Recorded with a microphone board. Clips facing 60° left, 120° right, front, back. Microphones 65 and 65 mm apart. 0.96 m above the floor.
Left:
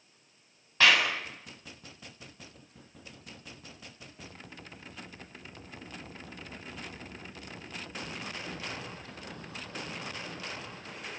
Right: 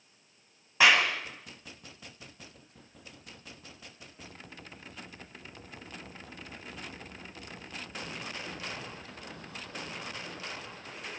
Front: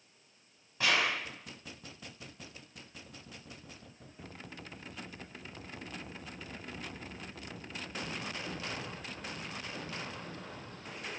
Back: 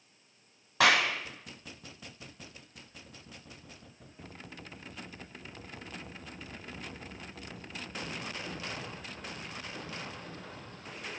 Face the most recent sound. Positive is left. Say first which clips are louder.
# right 1 dB, back 5 dB
turn(degrees=165)